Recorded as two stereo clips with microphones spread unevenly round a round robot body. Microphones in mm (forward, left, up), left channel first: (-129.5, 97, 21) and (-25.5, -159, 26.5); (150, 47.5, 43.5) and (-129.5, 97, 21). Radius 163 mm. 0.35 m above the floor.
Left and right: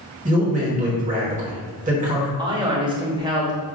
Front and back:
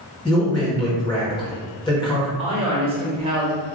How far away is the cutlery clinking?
No cutlery clinking in this recording.